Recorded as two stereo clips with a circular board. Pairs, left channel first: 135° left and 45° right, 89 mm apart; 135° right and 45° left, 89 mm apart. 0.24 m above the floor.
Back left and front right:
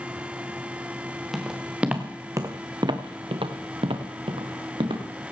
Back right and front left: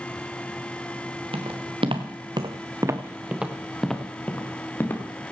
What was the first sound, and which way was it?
Footsteps, 40° left.